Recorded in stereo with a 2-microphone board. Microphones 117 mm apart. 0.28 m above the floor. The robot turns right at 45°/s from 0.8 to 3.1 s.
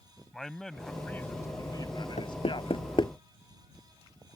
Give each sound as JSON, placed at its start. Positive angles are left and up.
{"t": 0.3, "sound": "a man speaking", "azimuth_deg": 5}
{"t": 2.2, "sound": "knocking", "side_deg": 75}